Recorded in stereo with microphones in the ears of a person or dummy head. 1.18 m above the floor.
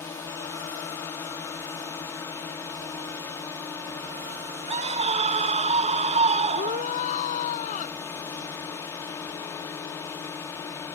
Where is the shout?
40° left (ahead or behind).